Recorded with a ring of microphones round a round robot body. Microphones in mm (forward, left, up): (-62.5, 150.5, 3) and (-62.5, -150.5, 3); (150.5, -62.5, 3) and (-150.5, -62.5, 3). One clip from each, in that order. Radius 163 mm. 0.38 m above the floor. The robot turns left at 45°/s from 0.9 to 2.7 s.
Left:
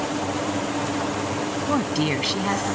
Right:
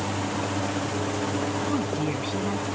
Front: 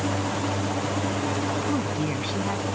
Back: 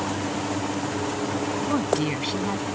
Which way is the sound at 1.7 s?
130° left.